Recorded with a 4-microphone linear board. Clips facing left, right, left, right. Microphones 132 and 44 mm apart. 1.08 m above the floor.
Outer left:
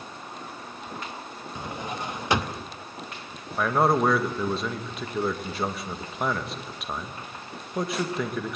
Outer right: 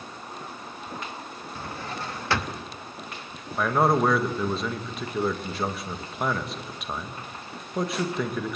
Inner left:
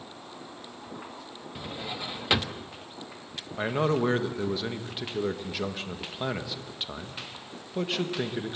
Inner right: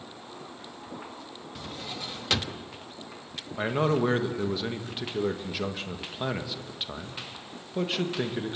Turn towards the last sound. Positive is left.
turn(degrees=0)  # may be behind; listen again after turning